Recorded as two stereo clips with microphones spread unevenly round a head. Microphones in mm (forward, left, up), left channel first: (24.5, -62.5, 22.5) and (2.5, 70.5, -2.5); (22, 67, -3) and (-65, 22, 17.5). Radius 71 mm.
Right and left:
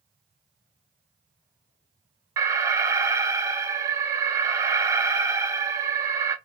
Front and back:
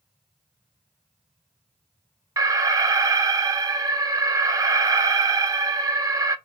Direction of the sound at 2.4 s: 150° left.